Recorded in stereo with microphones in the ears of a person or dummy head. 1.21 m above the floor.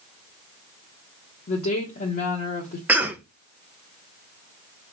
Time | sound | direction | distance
1.5 | a woman speaking | 55° left (ahead or behind) | 1.1 m
2.9 | a cough | 5° right (ahead or behind) | 0.7 m